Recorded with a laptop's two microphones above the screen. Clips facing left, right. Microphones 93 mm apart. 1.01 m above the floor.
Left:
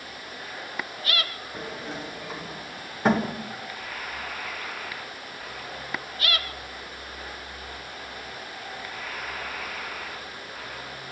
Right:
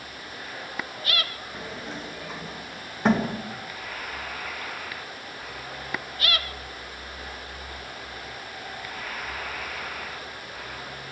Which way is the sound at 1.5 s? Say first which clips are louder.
Left 2 dB; centre (ahead or behind).